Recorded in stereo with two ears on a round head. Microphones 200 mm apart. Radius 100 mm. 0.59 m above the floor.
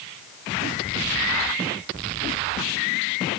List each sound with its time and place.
Only background noise.